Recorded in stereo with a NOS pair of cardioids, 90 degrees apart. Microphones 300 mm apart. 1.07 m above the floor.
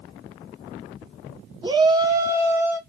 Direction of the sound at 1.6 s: 15° right.